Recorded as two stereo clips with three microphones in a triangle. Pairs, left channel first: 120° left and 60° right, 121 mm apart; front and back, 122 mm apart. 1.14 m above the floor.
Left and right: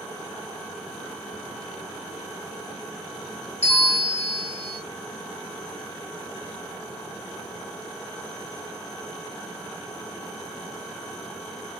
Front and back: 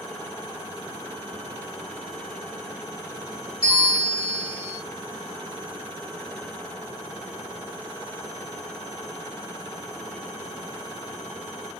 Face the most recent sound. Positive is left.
turn(degrees=145)